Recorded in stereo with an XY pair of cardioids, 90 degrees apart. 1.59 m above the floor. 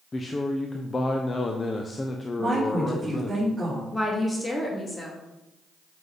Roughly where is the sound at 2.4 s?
Ahead.